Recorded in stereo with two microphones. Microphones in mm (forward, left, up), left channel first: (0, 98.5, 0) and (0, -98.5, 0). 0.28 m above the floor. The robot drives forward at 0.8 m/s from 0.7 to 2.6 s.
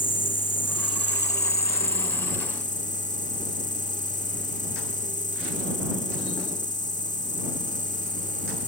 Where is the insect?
65° left (ahead or behind); by 8.7 s 40° left (ahead or behind).